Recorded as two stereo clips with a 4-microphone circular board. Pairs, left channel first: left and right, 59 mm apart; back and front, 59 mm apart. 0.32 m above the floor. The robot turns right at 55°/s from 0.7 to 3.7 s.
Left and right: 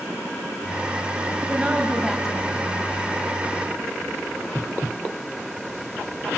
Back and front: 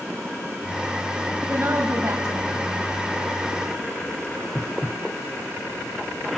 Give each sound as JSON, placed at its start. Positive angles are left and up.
{"t": 1.5, "sound": "a woman speaking", "azimuth_deg": -35, "distance_m": 1.8}